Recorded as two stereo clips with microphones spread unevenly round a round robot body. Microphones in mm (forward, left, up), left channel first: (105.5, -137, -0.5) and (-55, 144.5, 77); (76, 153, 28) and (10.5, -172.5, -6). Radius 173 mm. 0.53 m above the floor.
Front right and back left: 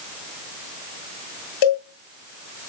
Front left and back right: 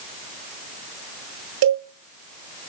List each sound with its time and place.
1.6 s a cowbell: 60° right, 9 m